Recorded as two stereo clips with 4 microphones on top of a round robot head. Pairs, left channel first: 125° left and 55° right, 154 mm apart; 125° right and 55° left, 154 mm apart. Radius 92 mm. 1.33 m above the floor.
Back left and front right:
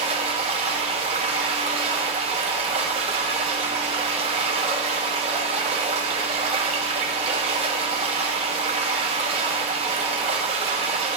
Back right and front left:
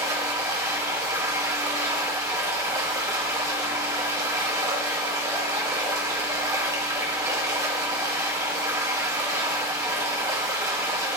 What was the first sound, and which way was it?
Running water, 10° right.